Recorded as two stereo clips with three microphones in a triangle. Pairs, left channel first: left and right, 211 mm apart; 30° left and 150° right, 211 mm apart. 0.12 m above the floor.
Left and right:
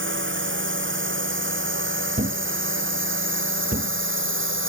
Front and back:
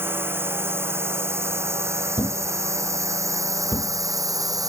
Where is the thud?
40° right.